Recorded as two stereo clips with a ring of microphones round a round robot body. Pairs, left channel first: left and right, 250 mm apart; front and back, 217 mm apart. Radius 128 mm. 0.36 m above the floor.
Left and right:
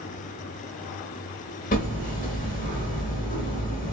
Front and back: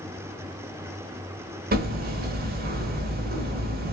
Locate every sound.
1.7 s hammering: 145° left, 1.0 m